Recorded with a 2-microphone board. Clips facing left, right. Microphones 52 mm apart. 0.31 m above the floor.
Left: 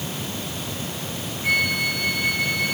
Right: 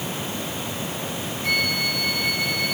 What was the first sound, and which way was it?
A flute, 10° left (ahead or behind).